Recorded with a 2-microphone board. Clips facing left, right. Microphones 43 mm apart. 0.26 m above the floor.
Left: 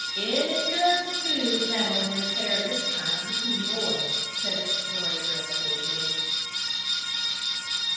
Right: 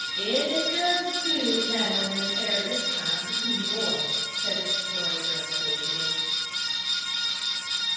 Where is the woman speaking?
40° left (ahead or behind), 2.0 m.